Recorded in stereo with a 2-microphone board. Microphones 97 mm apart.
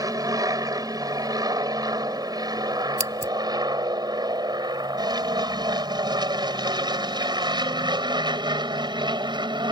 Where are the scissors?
30° right (ahead or behind).